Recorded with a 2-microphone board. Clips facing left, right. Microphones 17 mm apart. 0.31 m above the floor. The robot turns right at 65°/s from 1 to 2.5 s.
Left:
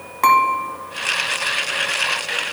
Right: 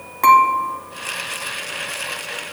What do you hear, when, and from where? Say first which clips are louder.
0.2 s dishes clattering: right 2 dB; 15° left (ahead or behind), 1.6 m